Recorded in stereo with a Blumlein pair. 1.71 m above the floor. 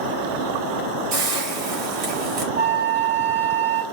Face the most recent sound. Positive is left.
turn(degrees=-70)